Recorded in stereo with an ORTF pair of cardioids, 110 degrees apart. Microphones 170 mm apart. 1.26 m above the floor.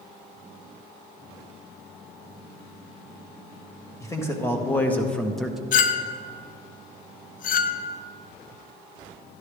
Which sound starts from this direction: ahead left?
A clink, at 5.7 s.